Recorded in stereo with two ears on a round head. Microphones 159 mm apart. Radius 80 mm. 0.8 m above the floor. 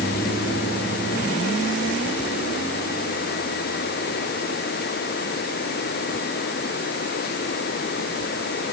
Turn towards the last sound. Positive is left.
No sound to turn to.